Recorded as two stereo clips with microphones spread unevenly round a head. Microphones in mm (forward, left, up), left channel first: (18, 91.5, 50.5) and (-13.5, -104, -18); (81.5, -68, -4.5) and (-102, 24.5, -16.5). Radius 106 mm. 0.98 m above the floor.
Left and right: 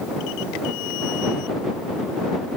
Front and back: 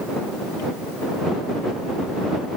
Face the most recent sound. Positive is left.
No sound to turn to.